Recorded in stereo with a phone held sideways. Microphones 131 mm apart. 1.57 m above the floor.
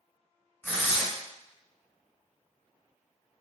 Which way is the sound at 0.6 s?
15° left (ahead or behind).